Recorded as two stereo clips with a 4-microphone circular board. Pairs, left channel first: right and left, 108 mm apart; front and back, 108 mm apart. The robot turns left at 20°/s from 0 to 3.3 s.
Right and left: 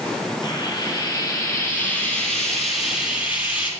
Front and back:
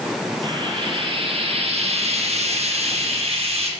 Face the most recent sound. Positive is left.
turn(degrees=165)